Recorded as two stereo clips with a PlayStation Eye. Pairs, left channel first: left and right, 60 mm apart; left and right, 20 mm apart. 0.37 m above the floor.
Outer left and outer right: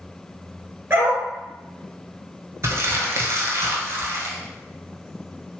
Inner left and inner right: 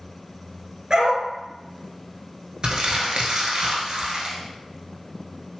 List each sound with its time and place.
0.9 s a dog barking: 40° right (ahead or behind), 1.3 m
2.6 s crumpling: 55° right (ahead or behind), 0.8 m